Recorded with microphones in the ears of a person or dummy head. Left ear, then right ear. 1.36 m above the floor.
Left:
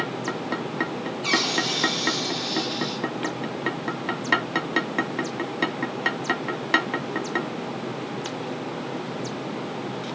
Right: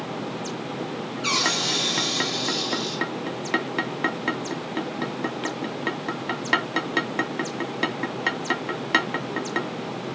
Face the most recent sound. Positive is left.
turn(degrees=-45)  # may be behind; listen again after turning